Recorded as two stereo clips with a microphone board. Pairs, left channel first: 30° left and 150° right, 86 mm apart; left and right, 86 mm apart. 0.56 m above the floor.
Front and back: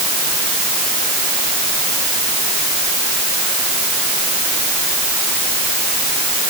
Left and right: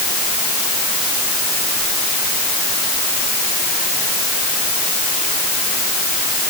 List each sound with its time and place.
Only background noise.